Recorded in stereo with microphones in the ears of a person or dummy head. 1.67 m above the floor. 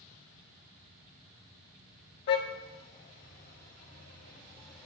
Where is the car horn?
50° left (ahead or behind), 2.5 m; by 4.9 s 15° left (ahead or behind), 1.1 m.